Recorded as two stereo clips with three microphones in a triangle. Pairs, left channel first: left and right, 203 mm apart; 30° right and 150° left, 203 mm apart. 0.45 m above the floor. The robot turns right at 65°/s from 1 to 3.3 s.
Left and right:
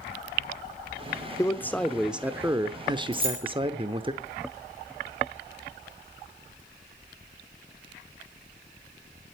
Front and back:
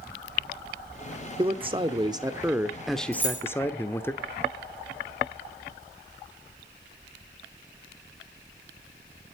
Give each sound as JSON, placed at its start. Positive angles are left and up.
{"t": 1.4, "sound": "a man speaking", "azimuth_deg": 145, "distance_m": 0.9}
{"t": 3.1, "sound": "keys jangling", "azimuth_deg": -90, "distance_m": 5.0}